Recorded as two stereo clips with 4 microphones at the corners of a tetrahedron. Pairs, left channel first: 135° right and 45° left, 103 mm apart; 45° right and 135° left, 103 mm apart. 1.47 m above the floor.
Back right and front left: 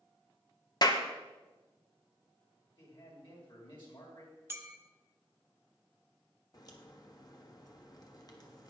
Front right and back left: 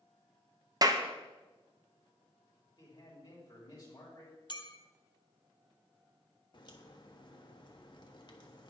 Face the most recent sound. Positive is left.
turn(degrees=-85)